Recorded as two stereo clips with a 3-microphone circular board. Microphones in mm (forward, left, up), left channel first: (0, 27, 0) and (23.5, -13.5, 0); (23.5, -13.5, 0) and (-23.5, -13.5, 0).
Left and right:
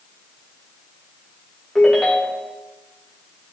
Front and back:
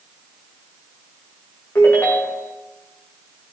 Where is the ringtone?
30° left, 4 m.